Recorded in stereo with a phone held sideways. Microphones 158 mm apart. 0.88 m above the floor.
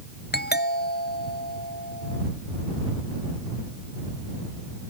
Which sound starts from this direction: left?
A doorbell, at 0.3 s.